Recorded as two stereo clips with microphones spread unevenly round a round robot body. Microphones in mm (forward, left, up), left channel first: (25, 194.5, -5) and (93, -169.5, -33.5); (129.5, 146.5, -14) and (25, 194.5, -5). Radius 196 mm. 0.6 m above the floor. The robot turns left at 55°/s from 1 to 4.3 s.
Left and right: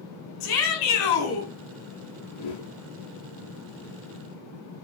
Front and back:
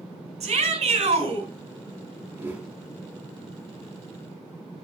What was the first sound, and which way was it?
A shout, 140° left.